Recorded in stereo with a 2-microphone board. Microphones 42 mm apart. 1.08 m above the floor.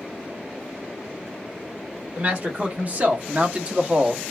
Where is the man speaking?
30° right (ahead or behind), 1.8 m; by 4.2 s 10° right (ahead or behind), 0.7 m.